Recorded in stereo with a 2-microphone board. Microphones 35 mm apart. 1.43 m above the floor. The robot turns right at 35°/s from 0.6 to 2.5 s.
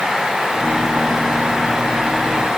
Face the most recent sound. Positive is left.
No sound to turn to.